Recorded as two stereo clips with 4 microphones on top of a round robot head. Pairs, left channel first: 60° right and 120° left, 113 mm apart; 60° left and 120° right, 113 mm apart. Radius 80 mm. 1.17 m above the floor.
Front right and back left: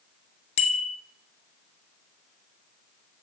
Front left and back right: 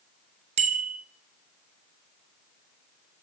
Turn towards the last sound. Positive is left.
turn(degrees=-90)